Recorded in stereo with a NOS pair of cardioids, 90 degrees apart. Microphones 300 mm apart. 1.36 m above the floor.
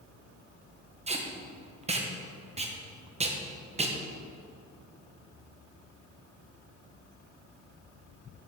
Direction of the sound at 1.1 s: 20° right.